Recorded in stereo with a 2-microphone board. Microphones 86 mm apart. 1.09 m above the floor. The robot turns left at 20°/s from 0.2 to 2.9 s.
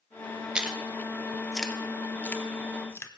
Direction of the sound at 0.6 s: 10° right (ahead or behind).